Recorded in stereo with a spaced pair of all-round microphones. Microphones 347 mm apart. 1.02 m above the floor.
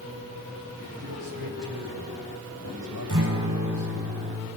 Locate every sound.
1.0 s a man speaking: 80° right, 6 m
3.1 s a guitar: 60° right (ahead or behind), 6.5 m